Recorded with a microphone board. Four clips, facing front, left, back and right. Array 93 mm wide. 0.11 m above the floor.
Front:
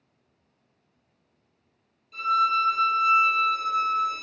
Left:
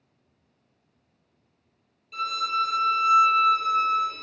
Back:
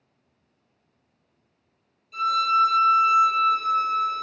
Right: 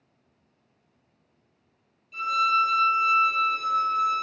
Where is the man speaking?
No man speaking in this recording.